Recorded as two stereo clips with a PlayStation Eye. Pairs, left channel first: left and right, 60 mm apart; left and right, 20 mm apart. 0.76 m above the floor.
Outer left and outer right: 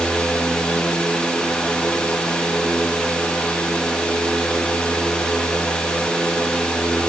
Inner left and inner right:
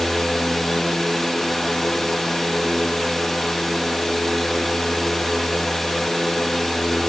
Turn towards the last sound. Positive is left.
No sound to turn to.